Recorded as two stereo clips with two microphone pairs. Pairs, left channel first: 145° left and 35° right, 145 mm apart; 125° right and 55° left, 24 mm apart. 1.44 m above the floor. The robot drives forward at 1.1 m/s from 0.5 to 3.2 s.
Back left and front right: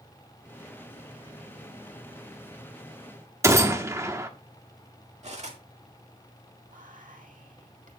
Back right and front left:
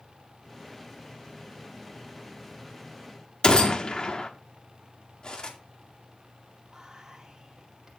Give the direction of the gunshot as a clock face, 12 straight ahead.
3 o'clock.